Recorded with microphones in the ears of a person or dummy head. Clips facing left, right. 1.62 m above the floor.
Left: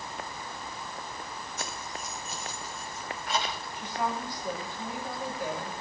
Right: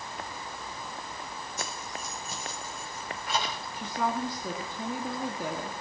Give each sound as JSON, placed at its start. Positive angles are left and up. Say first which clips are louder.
{"t": 1.6, "sound": "keys jangling", "louder": "right 1 dB", "side_deg": -80, "distance_m": 6.0}
{"t": 3.8, "sound": "a woman speaking", "louder": "right 2 dB", "side_deg": -75, "distance_m": 3.0}